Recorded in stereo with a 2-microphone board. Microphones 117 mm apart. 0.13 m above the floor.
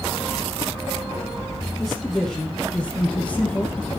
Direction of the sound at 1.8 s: Centre (ahead or behind).